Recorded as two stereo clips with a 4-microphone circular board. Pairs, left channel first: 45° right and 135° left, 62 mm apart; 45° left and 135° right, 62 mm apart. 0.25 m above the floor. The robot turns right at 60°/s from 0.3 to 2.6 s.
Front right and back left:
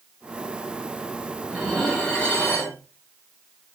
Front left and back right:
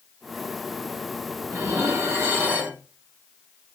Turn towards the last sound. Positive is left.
turn(degrees=-90)